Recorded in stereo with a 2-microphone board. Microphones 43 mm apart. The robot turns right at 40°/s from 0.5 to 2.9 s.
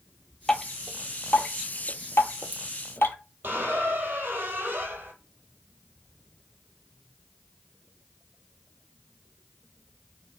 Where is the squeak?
55° right (ahead or behind), 0.8 m.